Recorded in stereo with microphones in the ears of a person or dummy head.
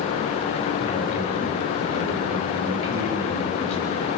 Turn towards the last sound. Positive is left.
turn(degrees=35)  # may be behind; listen again after turning